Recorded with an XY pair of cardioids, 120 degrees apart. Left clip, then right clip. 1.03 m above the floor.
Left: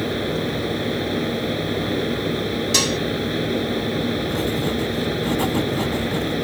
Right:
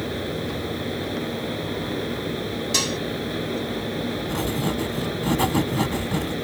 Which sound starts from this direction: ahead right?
Writing, at 4.3 s.